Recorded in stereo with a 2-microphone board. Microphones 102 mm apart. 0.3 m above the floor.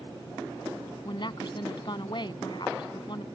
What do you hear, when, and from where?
1.1 s a woman speaking: 50° left (ahead or behind)